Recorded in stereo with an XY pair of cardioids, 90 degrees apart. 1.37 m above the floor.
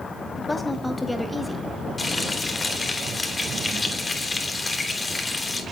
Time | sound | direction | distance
0.4 | a woman speaking | 25° left | 3 m
2.0 | frying | 35° left | 3.5 m